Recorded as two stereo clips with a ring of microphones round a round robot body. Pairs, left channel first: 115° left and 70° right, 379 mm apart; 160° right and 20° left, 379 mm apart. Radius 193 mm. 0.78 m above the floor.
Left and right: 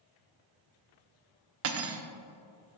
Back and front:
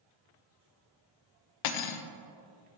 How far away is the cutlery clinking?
About 0.6 m.